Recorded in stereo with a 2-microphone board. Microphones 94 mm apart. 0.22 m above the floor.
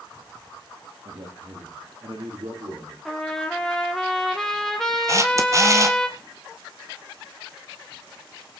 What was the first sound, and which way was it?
A man speaking, 60° right (ahead or behind).